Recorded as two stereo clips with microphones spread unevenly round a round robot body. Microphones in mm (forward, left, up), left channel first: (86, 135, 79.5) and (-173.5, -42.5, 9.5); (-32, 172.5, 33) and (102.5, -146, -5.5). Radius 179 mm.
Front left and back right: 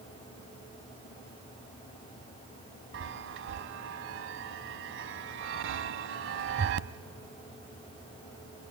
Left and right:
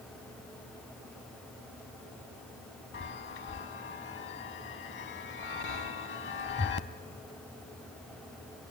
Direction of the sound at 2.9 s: 160° left.